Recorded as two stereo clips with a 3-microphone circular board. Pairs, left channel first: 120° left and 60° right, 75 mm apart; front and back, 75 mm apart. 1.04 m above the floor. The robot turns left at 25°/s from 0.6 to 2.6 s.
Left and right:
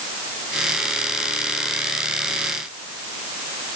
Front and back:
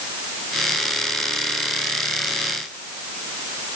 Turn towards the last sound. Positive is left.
No sound to turn to.